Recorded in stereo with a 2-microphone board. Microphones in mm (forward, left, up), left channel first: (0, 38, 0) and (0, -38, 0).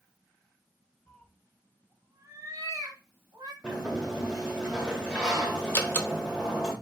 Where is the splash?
I don't hear a splash.